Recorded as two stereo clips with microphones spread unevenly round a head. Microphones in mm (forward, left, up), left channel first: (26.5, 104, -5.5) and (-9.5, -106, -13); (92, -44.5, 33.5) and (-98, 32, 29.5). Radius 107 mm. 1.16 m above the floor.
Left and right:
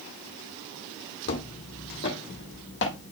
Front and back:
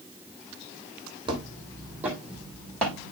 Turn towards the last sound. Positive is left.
turn(degrees=55)